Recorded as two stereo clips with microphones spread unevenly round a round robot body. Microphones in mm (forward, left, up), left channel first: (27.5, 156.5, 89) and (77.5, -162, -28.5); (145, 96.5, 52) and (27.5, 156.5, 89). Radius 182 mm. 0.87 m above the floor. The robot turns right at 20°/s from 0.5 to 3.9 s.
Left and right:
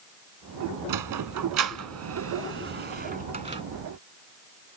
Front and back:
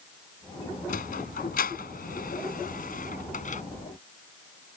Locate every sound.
0.9 s a sliding door: 60° right; by 3.6 s 5° right